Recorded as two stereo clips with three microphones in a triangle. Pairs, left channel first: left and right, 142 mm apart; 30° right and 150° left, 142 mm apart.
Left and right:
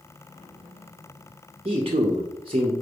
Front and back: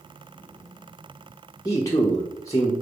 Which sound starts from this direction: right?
A man speaking, at 1.6 s.